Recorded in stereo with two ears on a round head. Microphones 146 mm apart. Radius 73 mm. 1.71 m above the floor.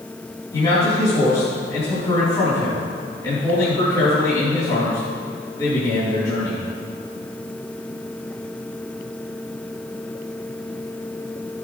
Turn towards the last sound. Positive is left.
turn(degrees=20)  # may be behind; listen again after turning